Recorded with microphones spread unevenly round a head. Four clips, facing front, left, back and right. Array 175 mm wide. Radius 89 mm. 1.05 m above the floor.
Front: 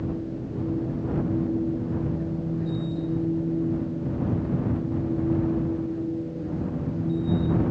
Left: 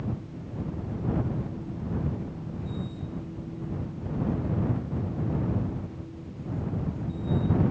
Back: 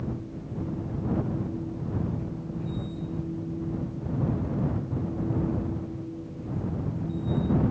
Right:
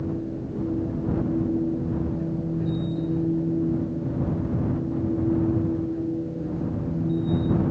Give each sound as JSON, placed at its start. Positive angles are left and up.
{"t": 0.0, "sound": "a machine running", "azimuth_deg": -55}